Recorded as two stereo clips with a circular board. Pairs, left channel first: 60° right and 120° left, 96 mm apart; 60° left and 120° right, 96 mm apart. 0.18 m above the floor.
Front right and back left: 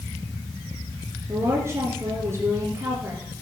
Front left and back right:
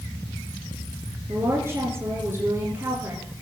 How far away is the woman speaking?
About 3 m.